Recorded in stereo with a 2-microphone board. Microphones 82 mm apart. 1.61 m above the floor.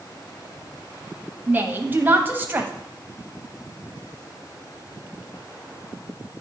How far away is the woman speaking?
About 1.0 m.